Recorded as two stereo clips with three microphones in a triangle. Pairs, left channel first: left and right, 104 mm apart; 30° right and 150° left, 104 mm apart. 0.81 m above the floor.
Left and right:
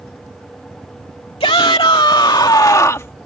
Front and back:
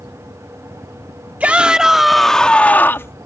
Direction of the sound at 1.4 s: 75° left.